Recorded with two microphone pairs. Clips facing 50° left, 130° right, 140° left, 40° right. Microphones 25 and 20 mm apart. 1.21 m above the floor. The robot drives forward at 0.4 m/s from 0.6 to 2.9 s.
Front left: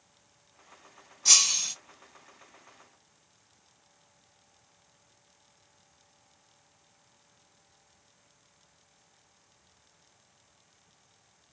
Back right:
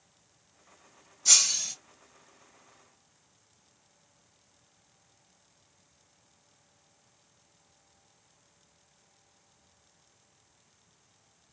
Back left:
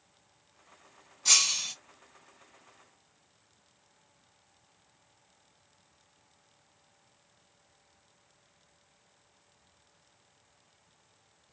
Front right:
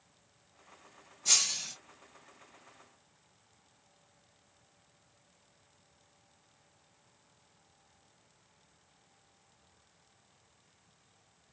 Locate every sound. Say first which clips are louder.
1.2 s breaking glass: front left 2 dB, back left 4 dB; 100° left, 1.6 m; by 1.8 s 110° left, 1.6 m